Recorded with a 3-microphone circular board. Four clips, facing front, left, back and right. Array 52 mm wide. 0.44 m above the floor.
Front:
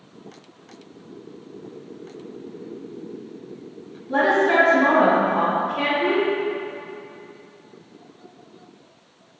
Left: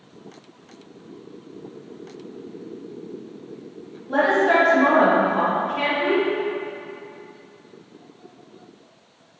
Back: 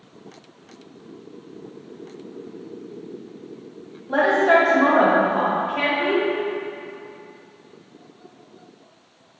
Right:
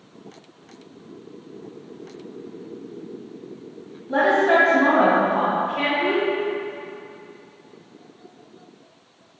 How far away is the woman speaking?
About 2.0 m.